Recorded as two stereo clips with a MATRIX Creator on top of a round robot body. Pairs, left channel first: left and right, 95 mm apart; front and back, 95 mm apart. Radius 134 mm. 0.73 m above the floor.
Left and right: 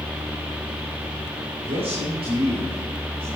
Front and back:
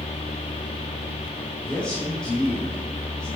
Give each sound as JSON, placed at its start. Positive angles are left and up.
{"t": 1.6, "sound": "a man speaking", "azimuth_deg": -80, "distance_m": 3.0}